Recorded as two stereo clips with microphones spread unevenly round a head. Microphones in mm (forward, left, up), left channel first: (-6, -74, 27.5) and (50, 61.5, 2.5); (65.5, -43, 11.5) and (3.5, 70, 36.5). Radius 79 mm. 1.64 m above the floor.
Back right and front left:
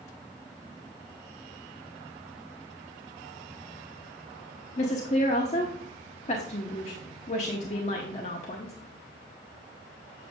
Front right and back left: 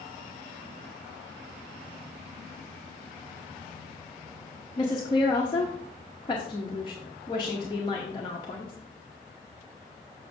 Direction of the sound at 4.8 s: 130° right.